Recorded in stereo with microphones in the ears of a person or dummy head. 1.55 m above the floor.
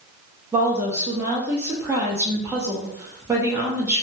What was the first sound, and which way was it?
A woman speaking, 15° right (ahead or behind).